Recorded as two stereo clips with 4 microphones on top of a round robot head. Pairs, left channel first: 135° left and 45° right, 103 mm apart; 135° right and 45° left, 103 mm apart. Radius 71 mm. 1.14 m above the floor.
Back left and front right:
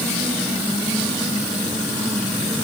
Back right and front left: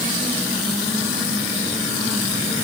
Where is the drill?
I don't hear a drill.